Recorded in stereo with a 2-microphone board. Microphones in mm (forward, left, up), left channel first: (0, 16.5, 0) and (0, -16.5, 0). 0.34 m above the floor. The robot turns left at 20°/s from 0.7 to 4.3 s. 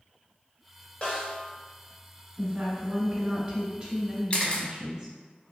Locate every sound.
1.0 s a snare drum: 35° left (ahead or behind), 0.7 m
2.4 s a woman speaking: 120° right, 1.0 m; by 5.2 s 155° right, 1.0 m
4.3 s a camera shutter: 35° left (ahead or behind), 0.5 m